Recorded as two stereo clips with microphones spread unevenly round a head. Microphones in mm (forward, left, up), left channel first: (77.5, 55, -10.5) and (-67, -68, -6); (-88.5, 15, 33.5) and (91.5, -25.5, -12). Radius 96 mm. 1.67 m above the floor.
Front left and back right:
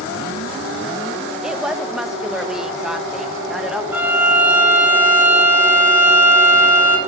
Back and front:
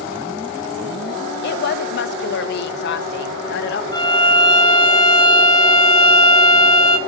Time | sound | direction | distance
1.4 | a woman speaking | 135° left | 0.7 m
3.9 | a violin | 145° left | 1.0 m